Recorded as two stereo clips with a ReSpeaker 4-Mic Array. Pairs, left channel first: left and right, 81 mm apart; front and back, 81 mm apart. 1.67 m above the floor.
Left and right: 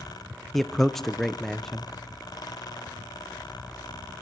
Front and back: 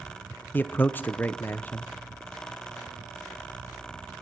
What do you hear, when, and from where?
0.5 s a man speaking: 10° left, 0.5 m